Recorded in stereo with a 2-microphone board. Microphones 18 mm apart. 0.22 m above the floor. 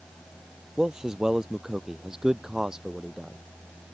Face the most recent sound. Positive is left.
turn(degrees=-30)  # may be behind; listen again after turning